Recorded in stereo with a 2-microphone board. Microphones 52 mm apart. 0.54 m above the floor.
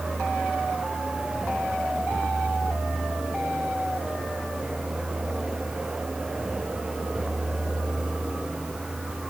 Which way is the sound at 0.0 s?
15° right (ahead or behind).